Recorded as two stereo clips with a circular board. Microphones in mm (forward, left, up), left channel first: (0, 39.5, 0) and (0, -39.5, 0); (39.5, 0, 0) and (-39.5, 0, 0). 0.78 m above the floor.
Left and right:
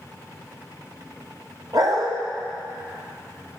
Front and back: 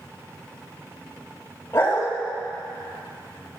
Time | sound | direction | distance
1.7 | a dog barking | 60° right | 1.8 m